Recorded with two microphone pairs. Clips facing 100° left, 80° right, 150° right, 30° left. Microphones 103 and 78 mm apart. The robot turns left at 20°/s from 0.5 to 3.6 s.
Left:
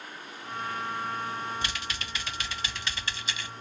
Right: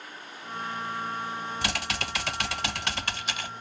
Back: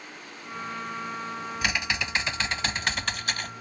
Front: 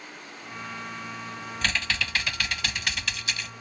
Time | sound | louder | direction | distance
1.6 | typing on a keyboard | right 4 dB, front 1 dB | 75° right | ?